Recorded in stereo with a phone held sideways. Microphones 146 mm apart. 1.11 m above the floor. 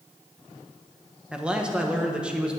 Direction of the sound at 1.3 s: 10° right (ahead or behind).